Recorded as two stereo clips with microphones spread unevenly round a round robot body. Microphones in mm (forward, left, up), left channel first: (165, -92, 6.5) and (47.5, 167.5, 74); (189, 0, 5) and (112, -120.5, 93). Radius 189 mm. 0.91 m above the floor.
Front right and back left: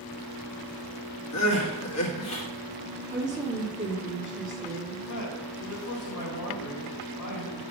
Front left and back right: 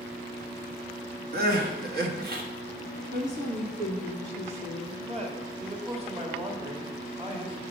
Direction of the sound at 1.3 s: 105° right.